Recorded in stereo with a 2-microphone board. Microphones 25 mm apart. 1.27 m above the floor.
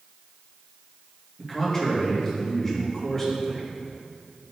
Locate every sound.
1.4 s a man speaking: 20° left (ahead or behind), 2.5 m